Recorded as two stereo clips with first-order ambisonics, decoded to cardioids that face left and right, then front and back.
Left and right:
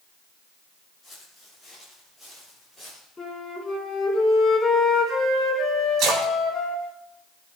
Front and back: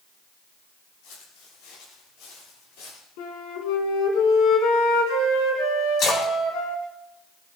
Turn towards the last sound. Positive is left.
turn(degrees=-45)